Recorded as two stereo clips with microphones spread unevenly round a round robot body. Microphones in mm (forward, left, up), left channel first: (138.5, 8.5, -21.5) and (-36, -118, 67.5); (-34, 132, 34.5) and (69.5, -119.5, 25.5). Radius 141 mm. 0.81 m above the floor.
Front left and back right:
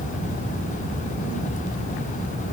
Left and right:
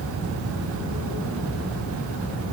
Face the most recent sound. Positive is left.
No sound to turn to.